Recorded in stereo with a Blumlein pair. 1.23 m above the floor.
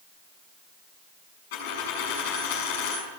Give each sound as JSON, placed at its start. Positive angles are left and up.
{"t": 1.5, "sound": "a dropped coin", "azimuth_deg": 50, "distance_m": 6.5}